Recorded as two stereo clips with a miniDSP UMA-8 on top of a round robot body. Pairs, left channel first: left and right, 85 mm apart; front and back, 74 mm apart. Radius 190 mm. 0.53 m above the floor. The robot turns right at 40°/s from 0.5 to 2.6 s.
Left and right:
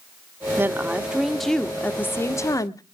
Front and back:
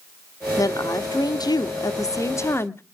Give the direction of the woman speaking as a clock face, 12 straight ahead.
1 o'clock.